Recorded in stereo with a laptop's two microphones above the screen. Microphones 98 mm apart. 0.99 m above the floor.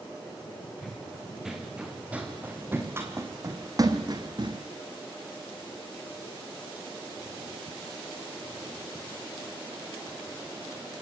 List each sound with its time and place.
0.8 s running footsteps: centre (ahead or behind), 3.5 m; by 4.6 s 50° right (ahead or behind), 2.5 m